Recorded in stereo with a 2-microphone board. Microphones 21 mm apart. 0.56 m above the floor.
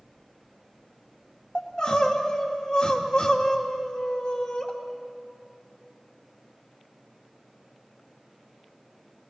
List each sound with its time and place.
1.6 s crying: 35° left (ahead or behind), 1.7 m